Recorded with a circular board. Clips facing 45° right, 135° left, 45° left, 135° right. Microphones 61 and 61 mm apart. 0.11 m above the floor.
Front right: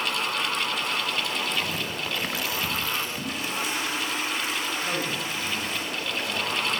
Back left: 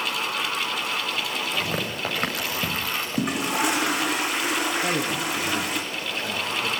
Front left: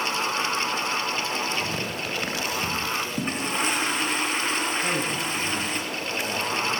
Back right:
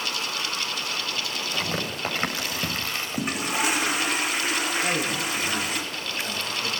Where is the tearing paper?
170° left, 8 m.